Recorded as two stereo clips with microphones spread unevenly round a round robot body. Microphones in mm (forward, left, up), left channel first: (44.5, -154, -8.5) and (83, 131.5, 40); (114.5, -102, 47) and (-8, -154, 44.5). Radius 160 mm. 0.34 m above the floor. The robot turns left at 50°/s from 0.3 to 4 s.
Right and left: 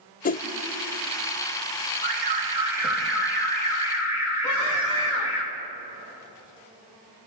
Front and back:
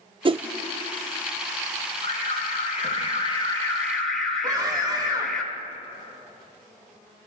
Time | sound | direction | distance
0.2 | a whoosh | 130° right | 0.7 m
2.0 | an alarm | 35° left | 4.5 m
4.4 | a scream | 100° right | 3.5 m